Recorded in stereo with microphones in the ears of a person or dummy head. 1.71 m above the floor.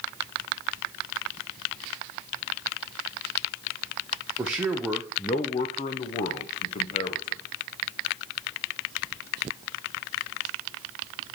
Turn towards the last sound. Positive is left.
turn(degrees=35)  # may be behind; listen again after turning